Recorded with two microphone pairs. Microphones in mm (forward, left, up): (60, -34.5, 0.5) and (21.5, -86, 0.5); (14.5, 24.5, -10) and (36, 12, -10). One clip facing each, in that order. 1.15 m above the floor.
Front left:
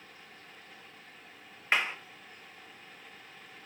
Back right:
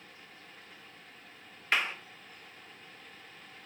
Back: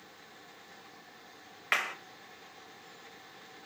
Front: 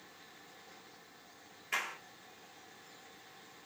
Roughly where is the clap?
Behind left.